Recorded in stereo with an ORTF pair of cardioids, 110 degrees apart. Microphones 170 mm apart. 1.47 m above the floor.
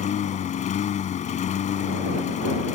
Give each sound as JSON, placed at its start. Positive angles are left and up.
{"t": 0.0, "sound": "a lawn mower", "azimuth_deg": 50}